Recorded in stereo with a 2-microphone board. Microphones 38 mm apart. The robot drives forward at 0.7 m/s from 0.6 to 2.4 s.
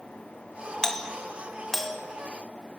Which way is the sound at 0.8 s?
15° left (ahead or behind).